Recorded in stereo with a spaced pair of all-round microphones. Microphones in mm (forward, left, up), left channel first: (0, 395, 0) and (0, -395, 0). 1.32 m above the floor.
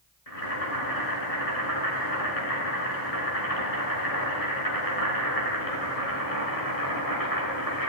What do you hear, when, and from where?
0.3 s boiling: 50° left (ahead or behind), 6.5 m